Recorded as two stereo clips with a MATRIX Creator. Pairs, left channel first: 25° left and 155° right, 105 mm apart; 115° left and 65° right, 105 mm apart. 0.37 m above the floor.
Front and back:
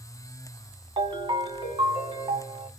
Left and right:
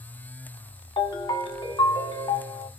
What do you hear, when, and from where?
1.0 s a ringtone: 155° left, 1.1 m